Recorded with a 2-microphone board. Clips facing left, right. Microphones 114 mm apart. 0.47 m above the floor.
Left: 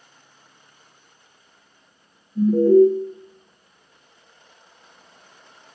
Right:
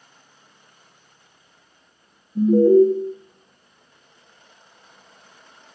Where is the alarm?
20° right (ahead or behind), 0.6 m.